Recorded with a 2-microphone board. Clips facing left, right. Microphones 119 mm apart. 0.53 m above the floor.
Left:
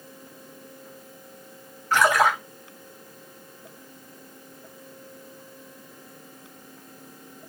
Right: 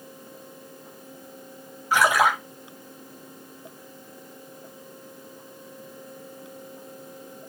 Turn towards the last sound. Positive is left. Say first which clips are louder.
# even
turn(degrees=-10)  # may be behind; listen again after turning